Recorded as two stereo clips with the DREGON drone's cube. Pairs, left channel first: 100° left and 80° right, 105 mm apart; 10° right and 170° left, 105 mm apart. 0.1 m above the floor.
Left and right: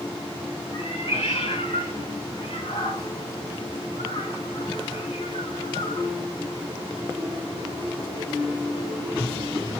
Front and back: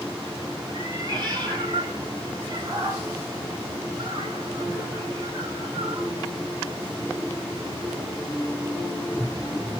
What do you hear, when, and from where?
0.7 s a cat meowing: 125° left, 3 m